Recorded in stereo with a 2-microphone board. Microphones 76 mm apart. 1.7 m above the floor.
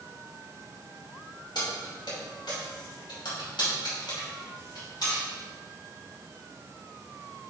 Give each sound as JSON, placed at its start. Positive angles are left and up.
{"t": 1.6, "sound": "keys jangling", "side_deg": 65, "distance_m": 2.0}